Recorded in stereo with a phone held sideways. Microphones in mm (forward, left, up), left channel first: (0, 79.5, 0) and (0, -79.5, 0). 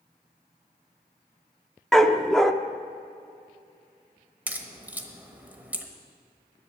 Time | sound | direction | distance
1.9 | a dog barking | centre (ahead or behind) | 0.6 m
4.5 | a crack | 10° right (ahead or behind) | 1.2 m